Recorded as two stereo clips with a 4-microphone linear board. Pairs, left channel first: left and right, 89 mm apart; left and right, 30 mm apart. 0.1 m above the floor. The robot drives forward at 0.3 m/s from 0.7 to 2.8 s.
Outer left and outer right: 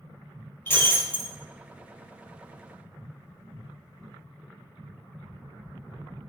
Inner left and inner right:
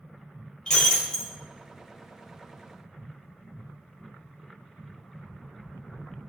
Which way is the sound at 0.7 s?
25° left (ahead or behind).